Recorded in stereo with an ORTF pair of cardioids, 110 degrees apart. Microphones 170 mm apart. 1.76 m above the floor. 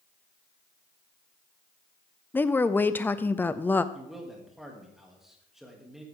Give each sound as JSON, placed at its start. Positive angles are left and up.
{"t": 2.3, "sound": "a woman speaking", "azimuth_deg": 10, "distance_m": 0.6}
{"t": 3.9, "sound": "a man speaking", "azimuth_deg": 0, "distance_m": 3.0}